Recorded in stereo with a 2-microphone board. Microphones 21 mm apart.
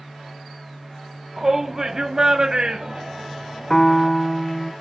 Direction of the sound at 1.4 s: 15° right (ahead or behind).